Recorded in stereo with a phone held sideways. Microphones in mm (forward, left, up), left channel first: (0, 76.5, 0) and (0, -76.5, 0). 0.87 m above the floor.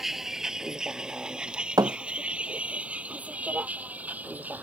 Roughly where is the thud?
Right.